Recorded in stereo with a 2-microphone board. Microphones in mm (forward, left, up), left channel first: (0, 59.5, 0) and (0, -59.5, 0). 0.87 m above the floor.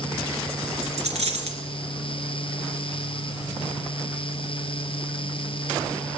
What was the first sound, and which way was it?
A dropped coin, 75° right (ahead or behind).